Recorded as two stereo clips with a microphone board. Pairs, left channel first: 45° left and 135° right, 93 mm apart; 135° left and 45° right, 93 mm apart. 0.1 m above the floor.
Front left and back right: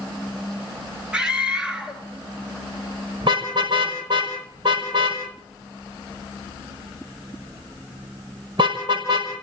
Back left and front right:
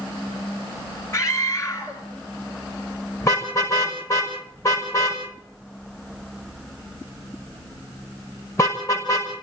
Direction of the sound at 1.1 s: 150° left.